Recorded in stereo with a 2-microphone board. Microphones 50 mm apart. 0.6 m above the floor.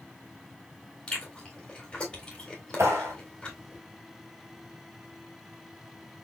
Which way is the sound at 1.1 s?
20° left (ahead or behind).